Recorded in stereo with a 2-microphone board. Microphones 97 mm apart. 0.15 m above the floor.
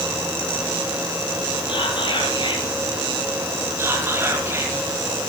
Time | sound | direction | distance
1.7 | whispering | 55° left (ahead or behind) | 3 m
3.8 | whispering | 20° right (ahead or behind) | 6 m